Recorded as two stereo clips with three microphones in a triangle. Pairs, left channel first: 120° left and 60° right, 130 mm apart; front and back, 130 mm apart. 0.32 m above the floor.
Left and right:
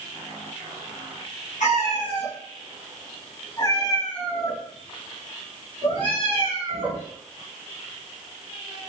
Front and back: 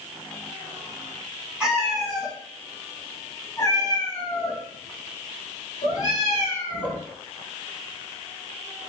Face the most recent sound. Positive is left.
turn(degrees=-30)